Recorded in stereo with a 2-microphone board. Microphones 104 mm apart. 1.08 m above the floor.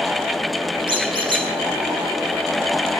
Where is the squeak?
55° right (ahead or behind), 2.5 m.